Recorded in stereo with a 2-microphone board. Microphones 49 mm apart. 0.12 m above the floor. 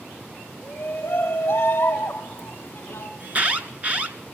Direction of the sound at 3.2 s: 35° right (ahead or behind).